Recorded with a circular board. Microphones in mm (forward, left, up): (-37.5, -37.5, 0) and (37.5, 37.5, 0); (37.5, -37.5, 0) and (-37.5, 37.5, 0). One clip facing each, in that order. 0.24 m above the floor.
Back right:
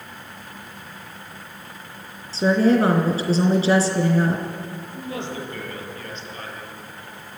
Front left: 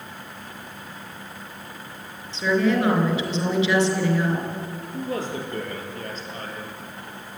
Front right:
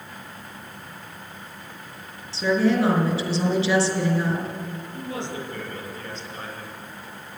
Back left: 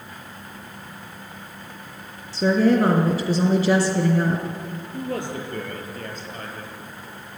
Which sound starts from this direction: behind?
A woman speaking, at 2.3 s.